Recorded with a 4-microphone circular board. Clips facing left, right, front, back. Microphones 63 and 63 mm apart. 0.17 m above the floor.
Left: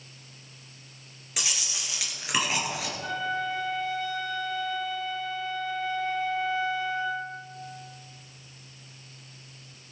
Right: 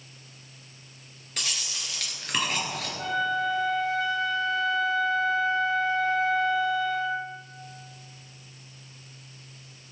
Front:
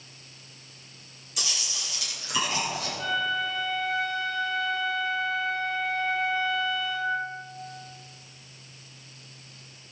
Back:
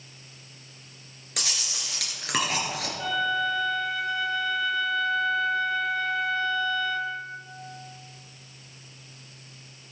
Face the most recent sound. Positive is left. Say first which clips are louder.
# right 5 dB, back 2 dB
turn(degrees=-90)